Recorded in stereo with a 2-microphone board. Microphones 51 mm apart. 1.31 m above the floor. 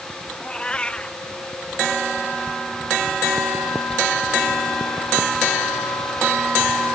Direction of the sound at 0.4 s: 20° left (ahead or behind).